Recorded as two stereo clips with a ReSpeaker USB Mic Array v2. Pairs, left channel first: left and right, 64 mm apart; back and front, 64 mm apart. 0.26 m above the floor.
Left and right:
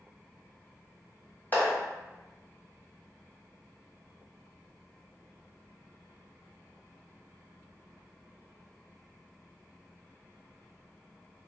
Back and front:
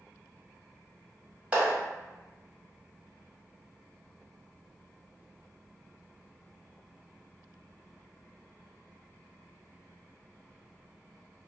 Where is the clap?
60° left, 1.4 m.